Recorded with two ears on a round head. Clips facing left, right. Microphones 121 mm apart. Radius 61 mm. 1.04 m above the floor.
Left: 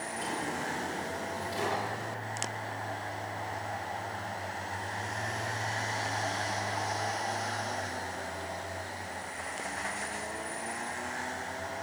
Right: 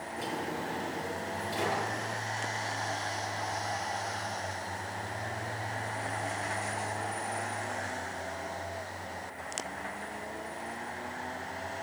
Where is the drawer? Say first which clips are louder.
Even; 15° right (ahead or behind), 6.5 m.